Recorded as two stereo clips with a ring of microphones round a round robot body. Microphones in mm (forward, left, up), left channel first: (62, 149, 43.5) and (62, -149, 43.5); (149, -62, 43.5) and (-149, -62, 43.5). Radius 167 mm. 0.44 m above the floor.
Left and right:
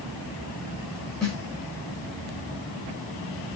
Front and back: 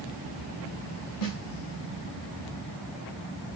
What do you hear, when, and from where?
1.2 s a snare drum: straight ahead, 4.5 m